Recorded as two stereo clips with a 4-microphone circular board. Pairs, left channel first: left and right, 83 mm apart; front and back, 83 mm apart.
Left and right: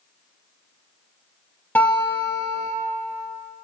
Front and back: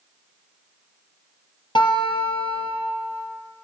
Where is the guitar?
25° left, 4 m.